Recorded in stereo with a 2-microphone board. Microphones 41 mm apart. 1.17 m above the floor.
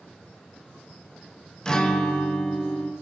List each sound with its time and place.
1.6 s a guitar: 20° left (ahead or behind), 0.6 m